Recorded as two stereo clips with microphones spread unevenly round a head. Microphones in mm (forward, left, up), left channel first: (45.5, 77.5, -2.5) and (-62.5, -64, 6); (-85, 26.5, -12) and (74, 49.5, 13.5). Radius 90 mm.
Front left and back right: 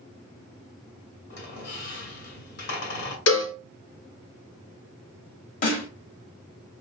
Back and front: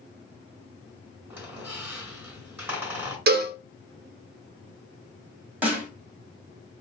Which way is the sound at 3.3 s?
30° left.